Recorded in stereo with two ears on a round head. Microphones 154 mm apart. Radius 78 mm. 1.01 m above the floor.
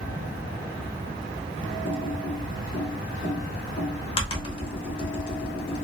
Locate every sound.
1.9 s typing on a keyboard: 30° left (ahead or behind), 0.8 m